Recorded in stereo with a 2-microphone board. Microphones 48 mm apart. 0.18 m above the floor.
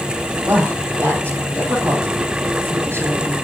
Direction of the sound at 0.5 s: 40° right (ahead or behind).